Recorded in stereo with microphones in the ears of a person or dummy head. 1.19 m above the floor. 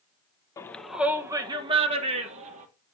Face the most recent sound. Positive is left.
turn(degrees=-40)  # may be behind; listen again after turning